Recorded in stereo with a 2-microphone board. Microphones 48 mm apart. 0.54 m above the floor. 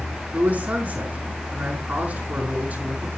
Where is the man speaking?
40° right (ahead or behind), 4.5 m.